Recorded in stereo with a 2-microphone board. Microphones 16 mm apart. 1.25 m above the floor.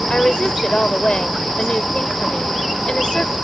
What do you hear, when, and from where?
0.1 s a woman speaking: 75° left (ahead or behind)